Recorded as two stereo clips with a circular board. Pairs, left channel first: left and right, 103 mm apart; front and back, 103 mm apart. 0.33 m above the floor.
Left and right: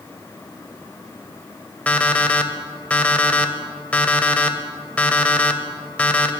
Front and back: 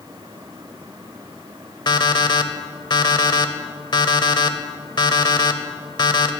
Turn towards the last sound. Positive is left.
turn(degrees=20)